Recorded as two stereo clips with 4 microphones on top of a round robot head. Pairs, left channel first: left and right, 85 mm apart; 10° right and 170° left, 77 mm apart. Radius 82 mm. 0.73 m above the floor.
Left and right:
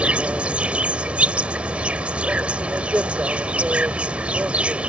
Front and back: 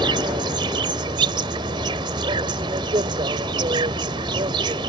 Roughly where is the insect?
Behind.